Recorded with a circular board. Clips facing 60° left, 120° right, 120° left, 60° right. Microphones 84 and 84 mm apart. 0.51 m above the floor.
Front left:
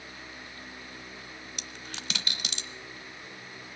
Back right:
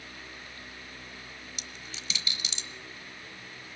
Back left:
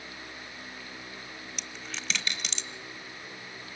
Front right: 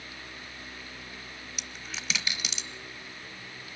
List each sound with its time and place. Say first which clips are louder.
1.6 s a dropped coin: front left 2 dB, even; 25° left, 0.9 m